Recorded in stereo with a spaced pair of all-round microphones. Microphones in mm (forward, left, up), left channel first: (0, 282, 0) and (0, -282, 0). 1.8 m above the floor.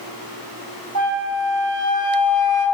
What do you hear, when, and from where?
0.9 s a flute: 35° right (ahead or behind), 1.0 m